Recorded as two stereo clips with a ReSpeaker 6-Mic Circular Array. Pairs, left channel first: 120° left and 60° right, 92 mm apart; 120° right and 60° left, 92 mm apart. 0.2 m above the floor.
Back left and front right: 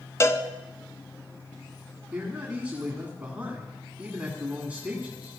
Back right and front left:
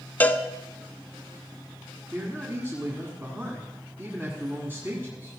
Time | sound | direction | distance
0.2 | a cowbell | 170° left | 0.7 m
2.1 | a man speaking | 10° left | 2.0 m